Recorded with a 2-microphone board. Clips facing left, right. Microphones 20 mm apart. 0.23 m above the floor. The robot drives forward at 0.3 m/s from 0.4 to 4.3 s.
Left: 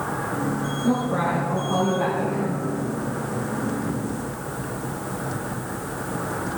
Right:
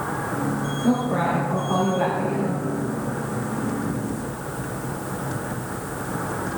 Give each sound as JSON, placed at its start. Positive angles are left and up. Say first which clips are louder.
{"t": 0.8, "sound": "a woman speaking", "louder": "right 1 dB", "side_deg": -45, "distance_m": 4.5}